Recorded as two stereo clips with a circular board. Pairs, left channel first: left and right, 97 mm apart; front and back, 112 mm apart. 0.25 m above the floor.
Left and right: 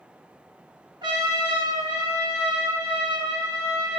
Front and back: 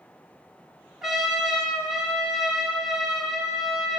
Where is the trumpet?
90° right, 0.8 m.